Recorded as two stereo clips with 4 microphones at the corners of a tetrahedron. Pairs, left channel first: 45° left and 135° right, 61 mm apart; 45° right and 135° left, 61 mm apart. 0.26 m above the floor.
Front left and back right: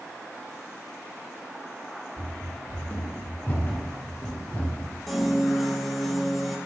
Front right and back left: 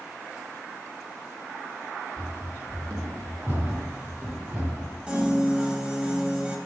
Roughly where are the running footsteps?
Left.